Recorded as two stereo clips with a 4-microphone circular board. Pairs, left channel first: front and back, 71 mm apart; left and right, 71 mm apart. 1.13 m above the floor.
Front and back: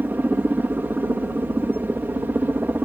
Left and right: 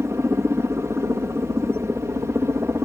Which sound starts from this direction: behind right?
A helicopter, at 0.0 s.